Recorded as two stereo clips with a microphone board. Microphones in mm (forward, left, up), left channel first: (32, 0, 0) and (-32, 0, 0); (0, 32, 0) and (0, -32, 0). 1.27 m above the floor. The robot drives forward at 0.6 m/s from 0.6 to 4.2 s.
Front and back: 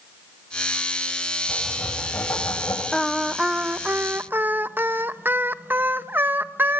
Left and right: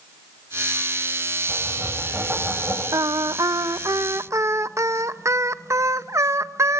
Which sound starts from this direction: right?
Singing, at 2.9 s.